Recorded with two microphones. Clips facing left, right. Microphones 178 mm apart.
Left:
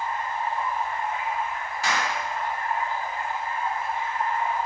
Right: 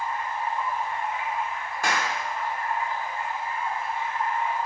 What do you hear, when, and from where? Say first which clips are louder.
0.0 s running water: left 1 dB; 70° left (ahead or behind), 3.5 m
1.8 s a clap: even; 50° right (ahead or behind), 1.3 m